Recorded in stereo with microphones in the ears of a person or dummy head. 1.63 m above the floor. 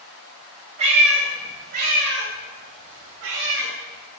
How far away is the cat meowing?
About 2.5 m.